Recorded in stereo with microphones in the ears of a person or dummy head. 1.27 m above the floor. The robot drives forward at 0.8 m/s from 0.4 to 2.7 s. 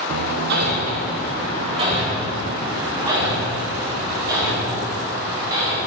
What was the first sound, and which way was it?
Hammering, 70° right (ahead or behind).